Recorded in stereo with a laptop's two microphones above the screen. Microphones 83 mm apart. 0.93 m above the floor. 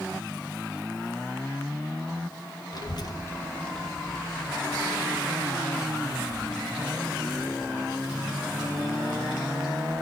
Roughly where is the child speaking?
Left.